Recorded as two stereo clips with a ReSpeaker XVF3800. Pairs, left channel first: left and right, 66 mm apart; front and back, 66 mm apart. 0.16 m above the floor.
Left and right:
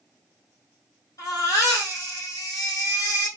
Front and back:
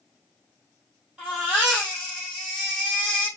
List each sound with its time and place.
1.2 s a baby crying: 100° left, 2.5 m